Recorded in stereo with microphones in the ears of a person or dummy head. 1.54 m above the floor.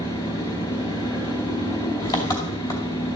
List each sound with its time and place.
0.0 s an engine running: 20° left (ahead or behind), 2.5 m